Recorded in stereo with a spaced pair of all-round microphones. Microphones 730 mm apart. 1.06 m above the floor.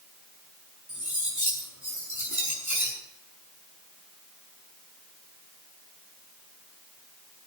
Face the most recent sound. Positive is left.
turn(degrees=-25)  # may be behind; listen again after turning